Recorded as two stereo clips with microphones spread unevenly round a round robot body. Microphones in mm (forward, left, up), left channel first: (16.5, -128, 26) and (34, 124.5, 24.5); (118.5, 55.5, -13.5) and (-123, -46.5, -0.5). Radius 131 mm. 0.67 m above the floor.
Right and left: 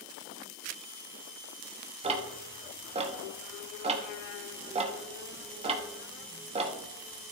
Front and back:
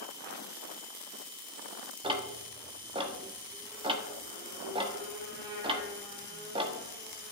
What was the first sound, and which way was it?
Ticking, 140° left.